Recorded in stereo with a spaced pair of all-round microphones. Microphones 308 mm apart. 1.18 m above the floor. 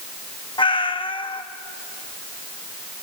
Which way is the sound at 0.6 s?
15° left (ahead or behind).